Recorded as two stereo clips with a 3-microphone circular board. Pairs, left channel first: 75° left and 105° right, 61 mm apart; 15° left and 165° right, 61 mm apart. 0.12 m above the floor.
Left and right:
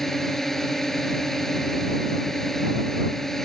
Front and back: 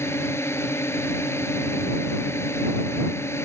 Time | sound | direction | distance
0.0 | a drone | 5° right | ?